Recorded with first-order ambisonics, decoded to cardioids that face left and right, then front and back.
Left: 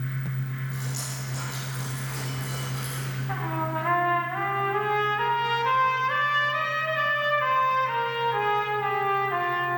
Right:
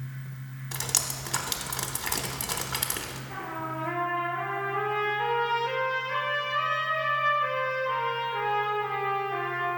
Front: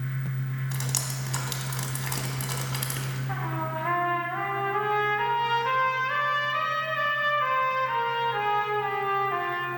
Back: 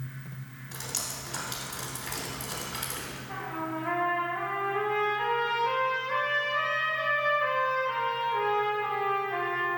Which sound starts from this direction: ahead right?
Dripping, at 0.7 s.